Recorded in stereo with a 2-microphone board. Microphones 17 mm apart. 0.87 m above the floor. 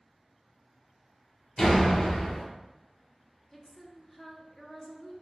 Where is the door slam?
55° left (ahead or behind), 1.2 m.